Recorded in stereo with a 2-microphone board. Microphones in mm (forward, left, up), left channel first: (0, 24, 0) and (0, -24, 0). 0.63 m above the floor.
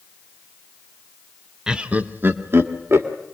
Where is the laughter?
15° right (ahead or behind), 1.1 m; by 3.1 s 65° right (ahead or behind), 2.5 m.